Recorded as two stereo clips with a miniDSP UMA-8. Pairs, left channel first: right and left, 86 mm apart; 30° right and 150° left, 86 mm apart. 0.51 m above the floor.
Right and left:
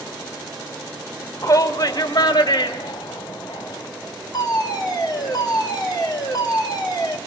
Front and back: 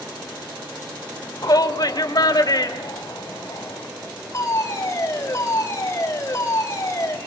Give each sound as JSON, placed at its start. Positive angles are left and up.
{"t": 1.4, "sound": "a shout", "azimuth_deg": -50, "distance_m": 1.2}
{"t": 4.3, "sound": "a fire alarm", "azimuth_deg": -70, "distance_m": 3.0}